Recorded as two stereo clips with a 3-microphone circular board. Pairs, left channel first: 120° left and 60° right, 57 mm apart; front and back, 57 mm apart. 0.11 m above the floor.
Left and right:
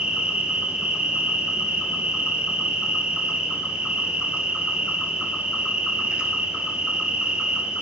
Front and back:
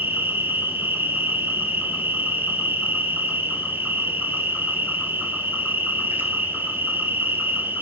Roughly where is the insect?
Behind right.